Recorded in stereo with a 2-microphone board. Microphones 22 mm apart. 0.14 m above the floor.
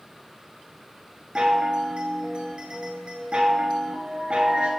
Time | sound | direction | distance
1.4 | a chime | 55° right (ahead or behind) | 0.8 m